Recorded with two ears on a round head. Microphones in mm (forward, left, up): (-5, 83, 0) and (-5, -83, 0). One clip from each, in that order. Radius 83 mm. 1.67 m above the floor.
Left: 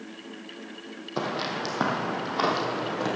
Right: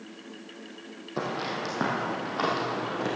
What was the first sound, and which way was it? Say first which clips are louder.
Footsteps: left 2 dB; 35° left (ahead or behind).